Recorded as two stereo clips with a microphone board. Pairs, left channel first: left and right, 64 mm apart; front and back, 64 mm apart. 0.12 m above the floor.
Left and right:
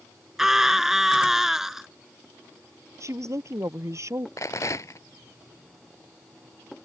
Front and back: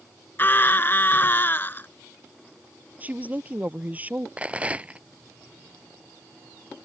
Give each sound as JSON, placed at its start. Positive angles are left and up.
{"t": 0.4, "sound": "a scream", "azimuth_deg": -10}
{"t": 3.0, "sound": "a woman speaking", "azimuth_deg": -120}
{"t": 4.4, "sound": "a rattle", "azimuth_deg": 115}